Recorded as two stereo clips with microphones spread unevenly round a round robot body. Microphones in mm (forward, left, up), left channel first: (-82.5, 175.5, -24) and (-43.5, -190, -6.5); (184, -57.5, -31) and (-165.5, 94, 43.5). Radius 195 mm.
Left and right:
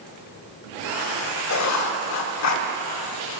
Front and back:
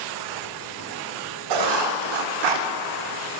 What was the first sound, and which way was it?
Writing, 135° left.